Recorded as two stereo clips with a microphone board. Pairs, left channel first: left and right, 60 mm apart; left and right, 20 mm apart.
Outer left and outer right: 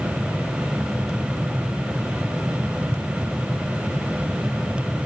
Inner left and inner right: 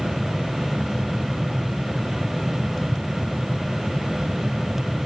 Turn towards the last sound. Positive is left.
No sound to turn to.